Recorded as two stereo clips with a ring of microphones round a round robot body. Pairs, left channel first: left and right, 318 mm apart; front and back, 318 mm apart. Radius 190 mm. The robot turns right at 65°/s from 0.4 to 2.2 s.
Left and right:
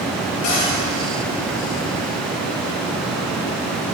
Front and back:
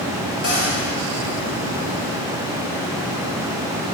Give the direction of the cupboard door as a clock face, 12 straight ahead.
11 o'clock.